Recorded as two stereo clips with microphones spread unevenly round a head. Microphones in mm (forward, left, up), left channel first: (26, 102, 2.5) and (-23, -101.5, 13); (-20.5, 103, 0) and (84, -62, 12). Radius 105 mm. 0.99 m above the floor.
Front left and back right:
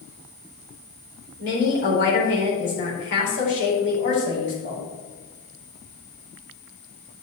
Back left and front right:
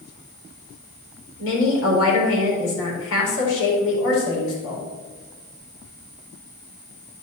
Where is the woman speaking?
115° left, 4 m.